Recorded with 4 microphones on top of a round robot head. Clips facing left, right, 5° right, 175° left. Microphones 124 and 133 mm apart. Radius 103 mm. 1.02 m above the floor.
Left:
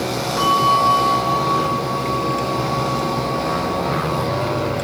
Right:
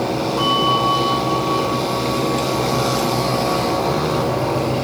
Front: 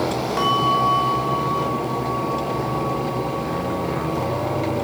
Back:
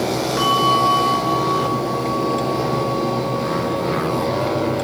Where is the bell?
60° left, 3.5 m.